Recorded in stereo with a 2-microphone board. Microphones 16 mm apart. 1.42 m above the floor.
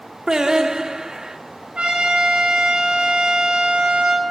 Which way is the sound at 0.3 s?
40° right (ahead or behind).